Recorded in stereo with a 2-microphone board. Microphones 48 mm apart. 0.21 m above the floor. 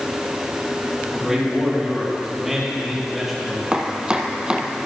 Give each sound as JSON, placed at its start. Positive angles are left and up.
{"t": 1.1, "sound": "a man speaking", "side_deg": -5, "distance_m": 4.5}
{"t": 3.7, "sound": "chopping", "side_deg": -15, "distance_m": 1.1}